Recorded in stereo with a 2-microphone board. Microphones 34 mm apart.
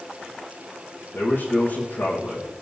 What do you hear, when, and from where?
1.1 s a man speaking: 70° left (ahead or behind), 7.5 m